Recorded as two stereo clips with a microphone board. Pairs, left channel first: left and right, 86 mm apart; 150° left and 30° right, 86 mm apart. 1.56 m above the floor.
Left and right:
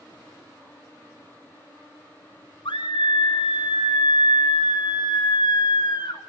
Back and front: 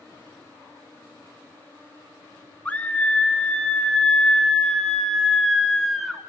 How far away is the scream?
About 3 m.